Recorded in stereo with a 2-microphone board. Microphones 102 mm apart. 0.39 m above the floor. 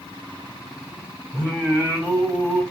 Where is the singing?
10° right (ahead or behind), 1.8 m.